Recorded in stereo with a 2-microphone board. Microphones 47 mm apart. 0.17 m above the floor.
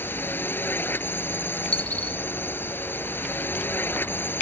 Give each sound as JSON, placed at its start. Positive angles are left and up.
{"t": 0.0, "sound": "a drone", "side_deg": 50}
{"t": 1.7, "sound": "a dropped coin", "side_deg": 25}